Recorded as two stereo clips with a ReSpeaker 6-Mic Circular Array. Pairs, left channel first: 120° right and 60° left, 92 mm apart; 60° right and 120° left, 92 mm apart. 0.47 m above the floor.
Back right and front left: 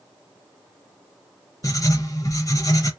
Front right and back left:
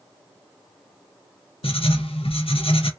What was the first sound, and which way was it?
Writing, 65° right.